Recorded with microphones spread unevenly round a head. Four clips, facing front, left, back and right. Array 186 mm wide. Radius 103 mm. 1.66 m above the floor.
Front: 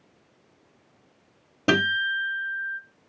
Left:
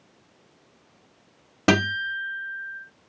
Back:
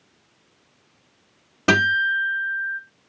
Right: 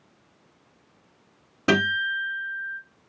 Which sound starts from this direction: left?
A guitar, at 1.7 s.